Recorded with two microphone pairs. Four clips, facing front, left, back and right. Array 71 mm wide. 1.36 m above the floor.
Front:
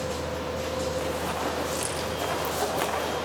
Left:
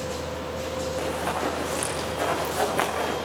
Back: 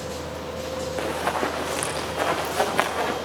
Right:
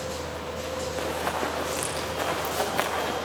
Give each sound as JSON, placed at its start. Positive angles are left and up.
{"t": 1.0, "sound": "running footsteps", "azimuth_deg": 180, "distance_m": 5.5}